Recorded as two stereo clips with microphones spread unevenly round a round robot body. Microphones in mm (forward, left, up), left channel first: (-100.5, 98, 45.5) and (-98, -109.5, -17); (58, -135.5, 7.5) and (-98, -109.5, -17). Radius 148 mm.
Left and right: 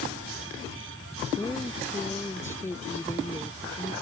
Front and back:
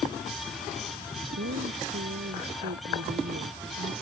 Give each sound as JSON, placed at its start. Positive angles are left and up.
{"t": 1.4, "sound": "a woman speaking", "azimuth_deg": 170}